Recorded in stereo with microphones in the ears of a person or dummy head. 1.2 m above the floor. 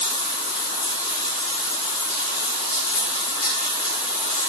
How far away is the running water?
About 2.5 m.